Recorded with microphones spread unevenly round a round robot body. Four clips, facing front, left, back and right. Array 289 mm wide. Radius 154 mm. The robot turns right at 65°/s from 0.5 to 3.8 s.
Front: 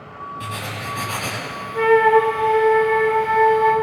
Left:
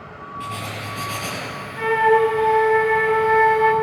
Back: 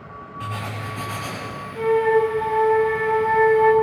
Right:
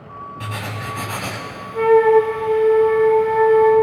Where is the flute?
35° right, 4 m; by 3.7 s 95° left, 4 m.